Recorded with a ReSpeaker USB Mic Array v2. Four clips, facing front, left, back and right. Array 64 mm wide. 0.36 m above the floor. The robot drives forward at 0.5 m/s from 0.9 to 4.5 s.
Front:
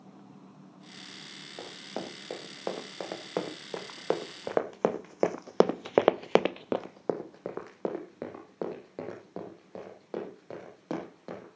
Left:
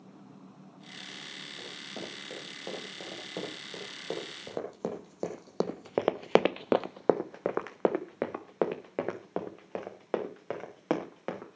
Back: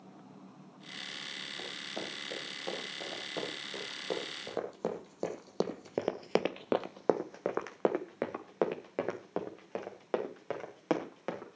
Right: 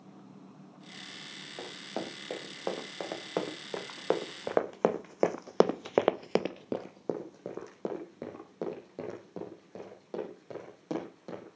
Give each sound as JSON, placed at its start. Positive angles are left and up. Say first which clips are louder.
{"t": 1.6, "sound": "running footsteps", "louder": "right 5 dB, front 4 dB", "azimuth_deg": -45, "distance_m": 5.5}